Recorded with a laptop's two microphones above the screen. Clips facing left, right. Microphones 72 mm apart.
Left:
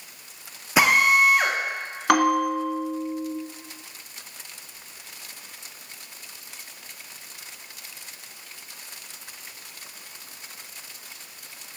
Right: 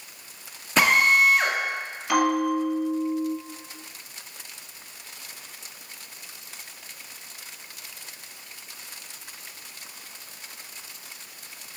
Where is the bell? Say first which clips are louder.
Left 2 dB; 65° left (ahead or behind), 1.7 m.